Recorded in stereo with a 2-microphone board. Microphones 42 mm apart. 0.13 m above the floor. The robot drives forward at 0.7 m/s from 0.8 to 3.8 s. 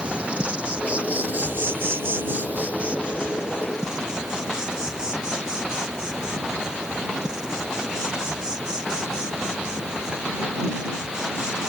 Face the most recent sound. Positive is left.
turn(degrees=-20)  # may be behind; listen again after turning